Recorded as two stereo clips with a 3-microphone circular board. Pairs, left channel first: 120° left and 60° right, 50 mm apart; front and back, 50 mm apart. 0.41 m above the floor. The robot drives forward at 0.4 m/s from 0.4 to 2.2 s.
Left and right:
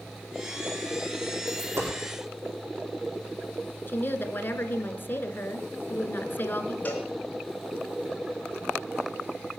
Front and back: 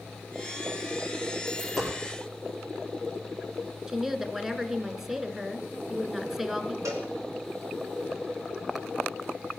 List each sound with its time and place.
1.5 s a dropped coin: 85° right, 4.5 m
3.9 s a woman speaking: 105° left, 1.4 m
6.8 s a cowbell: 175° left, 2.5 m